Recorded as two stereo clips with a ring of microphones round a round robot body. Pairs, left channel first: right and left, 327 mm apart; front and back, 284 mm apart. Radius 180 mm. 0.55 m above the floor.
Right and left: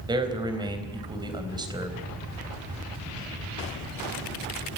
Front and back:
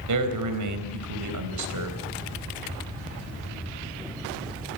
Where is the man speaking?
165° left, 3.5 m.